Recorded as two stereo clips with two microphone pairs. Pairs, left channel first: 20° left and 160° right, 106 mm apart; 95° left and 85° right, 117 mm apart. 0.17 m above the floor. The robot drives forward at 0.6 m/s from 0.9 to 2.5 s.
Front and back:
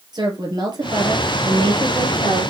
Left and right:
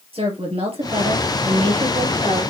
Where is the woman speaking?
115° right, 3.5 m; by 2.5 s 130° right, 4 m.